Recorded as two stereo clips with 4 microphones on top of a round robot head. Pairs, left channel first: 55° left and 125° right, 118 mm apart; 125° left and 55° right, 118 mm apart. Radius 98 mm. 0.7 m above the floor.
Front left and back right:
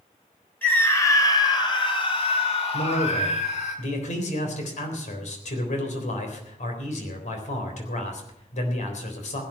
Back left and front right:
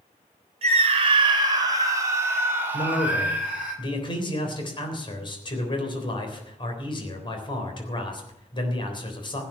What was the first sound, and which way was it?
A scream, 20° right.